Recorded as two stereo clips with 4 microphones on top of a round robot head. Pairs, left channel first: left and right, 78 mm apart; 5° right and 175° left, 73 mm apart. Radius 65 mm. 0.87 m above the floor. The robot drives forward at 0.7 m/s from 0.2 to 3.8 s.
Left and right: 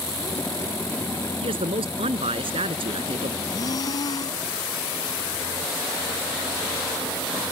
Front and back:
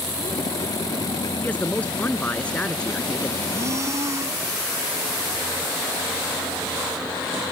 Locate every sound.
1.4 s a man speaking: 80° right; by 3.4 s 85° right
3.5 s breathing: 125° left; by 4.4 s 130° left